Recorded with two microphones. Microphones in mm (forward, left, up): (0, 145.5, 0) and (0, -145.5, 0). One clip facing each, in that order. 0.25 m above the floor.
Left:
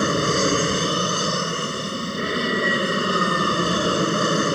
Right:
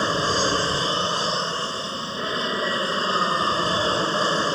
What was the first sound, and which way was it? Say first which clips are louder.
An aircraft: left 4 dB; 25° left (ahead or behind).